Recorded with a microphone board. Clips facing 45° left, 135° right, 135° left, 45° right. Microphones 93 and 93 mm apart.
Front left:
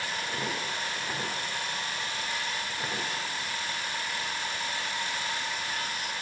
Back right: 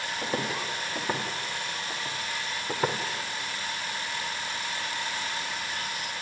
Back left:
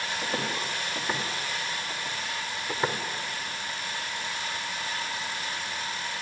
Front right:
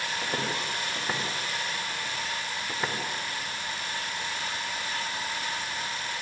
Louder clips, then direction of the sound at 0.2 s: Back right 3 dB, even; 125° right.